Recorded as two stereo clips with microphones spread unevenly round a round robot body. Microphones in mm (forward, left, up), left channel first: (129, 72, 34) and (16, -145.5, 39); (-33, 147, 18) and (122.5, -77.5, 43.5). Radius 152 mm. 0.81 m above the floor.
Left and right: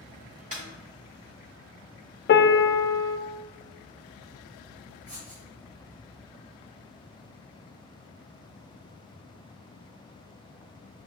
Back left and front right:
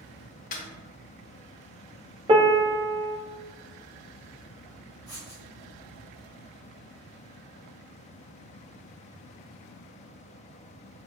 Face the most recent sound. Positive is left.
turn(degrees=-55)